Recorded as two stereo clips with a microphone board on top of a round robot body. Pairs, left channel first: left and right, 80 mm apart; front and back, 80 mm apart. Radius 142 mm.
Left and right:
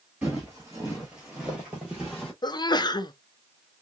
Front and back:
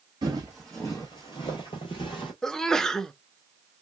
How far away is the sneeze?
About 0.6 m.